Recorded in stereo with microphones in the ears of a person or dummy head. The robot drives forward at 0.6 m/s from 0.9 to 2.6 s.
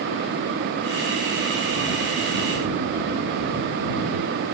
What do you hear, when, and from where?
Only background noise.